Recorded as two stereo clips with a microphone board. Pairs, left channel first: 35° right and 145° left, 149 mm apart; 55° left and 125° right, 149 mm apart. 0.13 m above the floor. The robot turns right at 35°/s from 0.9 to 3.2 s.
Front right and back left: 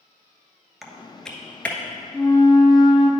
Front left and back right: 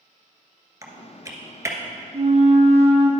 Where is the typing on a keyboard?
125° right, 1.0 m; by 1.8 s 95° right, 1.0 m.